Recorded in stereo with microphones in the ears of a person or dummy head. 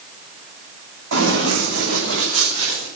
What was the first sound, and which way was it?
Running footsteps, 70° right (ahead or behind).